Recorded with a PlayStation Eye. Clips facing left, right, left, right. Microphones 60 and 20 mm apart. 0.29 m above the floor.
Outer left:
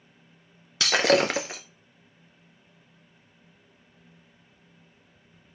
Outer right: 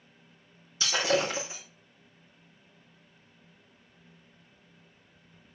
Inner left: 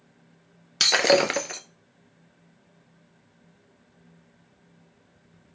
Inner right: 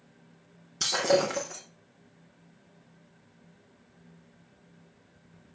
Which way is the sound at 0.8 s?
90° left.